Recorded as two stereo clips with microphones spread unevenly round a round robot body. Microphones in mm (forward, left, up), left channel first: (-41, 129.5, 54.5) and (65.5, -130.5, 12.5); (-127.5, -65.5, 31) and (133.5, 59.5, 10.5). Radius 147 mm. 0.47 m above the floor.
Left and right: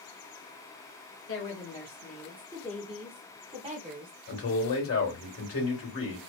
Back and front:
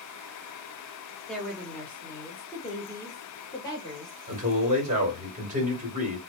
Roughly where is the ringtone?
No ringtone in this recording.